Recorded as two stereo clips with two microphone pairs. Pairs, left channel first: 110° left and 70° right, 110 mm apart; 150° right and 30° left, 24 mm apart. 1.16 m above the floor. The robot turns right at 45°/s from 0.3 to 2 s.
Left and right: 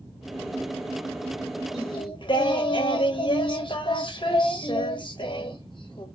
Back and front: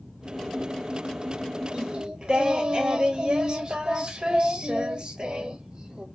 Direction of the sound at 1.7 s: 65° left.